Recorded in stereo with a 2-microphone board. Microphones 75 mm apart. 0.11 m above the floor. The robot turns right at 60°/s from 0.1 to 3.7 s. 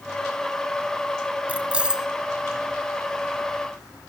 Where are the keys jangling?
20° right (ahead or behind), 0.8 m; by 2.1 s 10° right (ahead or behind), 0.8 m.